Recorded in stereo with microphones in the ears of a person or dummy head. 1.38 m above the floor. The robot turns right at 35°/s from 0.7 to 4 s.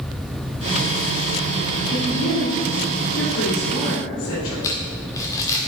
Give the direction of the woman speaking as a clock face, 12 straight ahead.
11 o'clock.